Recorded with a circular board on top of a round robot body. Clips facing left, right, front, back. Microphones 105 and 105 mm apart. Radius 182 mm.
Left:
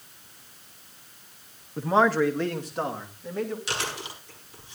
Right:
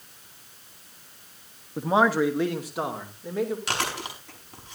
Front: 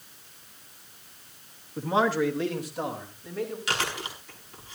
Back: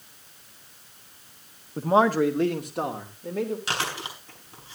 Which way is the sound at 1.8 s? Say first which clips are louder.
Even, back 4 dB; 160° right.